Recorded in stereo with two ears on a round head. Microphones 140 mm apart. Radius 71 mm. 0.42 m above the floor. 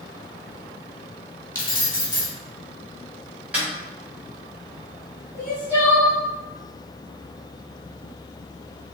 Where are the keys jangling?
25° left (ahead or behind), 1.2 m.